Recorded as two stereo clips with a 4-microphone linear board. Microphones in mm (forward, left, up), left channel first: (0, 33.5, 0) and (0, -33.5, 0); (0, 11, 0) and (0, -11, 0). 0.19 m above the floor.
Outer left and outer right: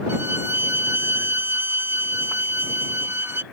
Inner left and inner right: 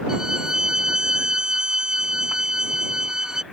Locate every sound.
0.1 s a violin: 35° right (ahead or behind)